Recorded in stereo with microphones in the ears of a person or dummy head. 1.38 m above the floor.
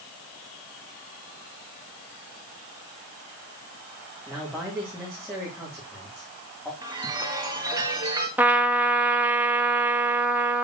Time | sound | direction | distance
4.3 | a man speaking | 5° left (ahead or behind) | 2 m
6.8 | a chime | 15° right (ahead or behind) | 1.7 m
8.4 | a trumpet | 5° right (ahead or behind) | 1.1 m